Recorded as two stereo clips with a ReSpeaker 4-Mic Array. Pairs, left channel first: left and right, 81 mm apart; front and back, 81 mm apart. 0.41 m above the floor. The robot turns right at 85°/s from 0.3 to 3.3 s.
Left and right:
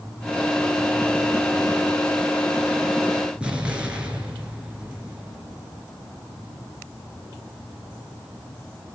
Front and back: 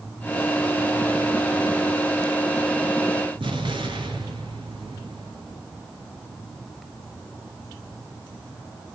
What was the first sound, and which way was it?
An explosion, 170° right.